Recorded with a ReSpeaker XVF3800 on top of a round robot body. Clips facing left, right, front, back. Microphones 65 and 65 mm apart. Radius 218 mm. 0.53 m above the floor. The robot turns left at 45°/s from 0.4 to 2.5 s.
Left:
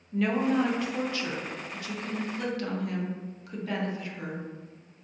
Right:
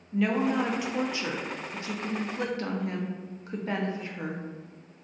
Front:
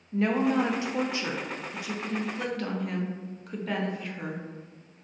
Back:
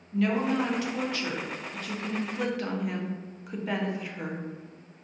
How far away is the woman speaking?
About 0.7 m.